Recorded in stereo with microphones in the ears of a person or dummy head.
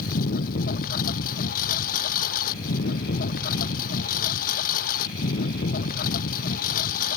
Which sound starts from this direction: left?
A lawn mower, at 0.0 s.